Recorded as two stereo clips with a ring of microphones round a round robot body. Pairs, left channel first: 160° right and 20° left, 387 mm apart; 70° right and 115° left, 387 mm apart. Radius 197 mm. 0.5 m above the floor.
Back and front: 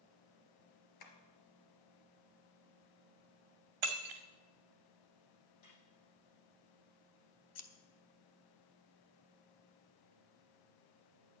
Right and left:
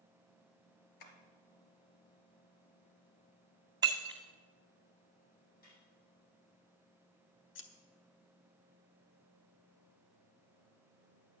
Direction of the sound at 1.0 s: 110° right.